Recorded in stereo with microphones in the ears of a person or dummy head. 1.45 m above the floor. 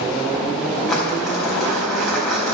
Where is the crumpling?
Centre (ahead or behind), 4 m.